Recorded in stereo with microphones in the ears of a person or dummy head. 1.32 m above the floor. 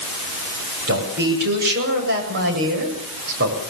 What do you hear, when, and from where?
0.9 s a man speaking: 65° right (ahead or behind), 7.5 m